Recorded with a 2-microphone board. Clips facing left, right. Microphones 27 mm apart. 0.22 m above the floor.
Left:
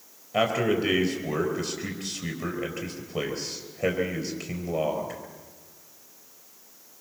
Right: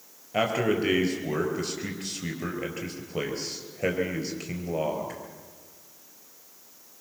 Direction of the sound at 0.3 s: 5° right (ahead or behind).